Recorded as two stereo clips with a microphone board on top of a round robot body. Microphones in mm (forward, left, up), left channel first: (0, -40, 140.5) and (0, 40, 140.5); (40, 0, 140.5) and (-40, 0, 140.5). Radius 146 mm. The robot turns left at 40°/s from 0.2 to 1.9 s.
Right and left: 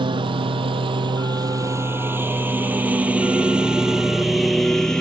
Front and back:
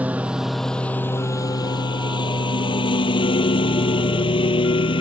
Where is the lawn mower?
110° left; by 5.0 s 10° right.